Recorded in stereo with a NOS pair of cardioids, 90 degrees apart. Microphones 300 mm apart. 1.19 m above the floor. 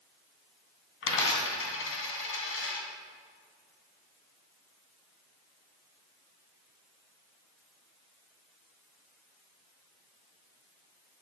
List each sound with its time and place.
1.0 s a dropped coin: 50° left, 3 m